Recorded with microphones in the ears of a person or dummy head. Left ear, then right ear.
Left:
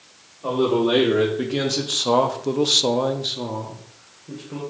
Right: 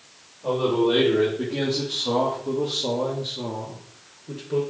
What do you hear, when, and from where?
0.4 s a man speaking: 55° left (ahead or behind), 1.7 m; by 4.6 s 20° right (ahead or behind), 1.1 m